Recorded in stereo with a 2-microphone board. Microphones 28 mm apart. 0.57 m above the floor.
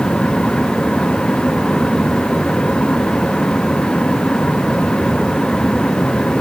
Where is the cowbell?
No cowbell in this recording.